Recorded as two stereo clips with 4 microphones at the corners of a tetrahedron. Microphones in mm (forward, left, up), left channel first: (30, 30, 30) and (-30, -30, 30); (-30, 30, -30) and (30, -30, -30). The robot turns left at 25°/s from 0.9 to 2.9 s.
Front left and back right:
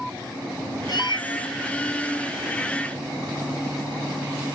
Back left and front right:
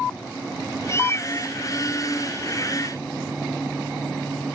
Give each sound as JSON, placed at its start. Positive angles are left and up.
{"t": 0.9, "sound": "a cat meowing", "azimuth_deg": 80}